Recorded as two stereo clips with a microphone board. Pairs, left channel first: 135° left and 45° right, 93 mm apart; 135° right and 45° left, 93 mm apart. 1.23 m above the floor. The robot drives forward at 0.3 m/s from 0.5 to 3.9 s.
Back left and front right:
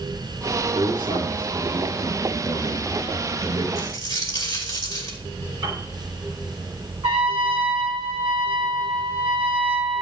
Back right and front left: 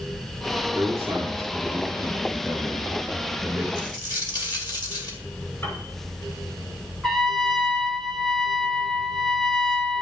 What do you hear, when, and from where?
0.8 s a man speaking: 20° right, 5 m; by 3.6 s 25° right, 4.5 m
3.8 s a dropped coin: 175° right, 2 m
5.6 s a piano: 75° right, 3.5 m
7.0 s a trumpet: 50° right, 4 m